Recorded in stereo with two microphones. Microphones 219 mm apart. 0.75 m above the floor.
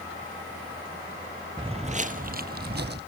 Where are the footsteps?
20° right (ahead or behind), 1.0 m; by 3.0 s 50° right (ahead or behind), 1.8 m.